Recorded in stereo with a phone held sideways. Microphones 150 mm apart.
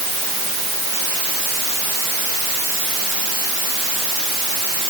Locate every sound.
Only background noise.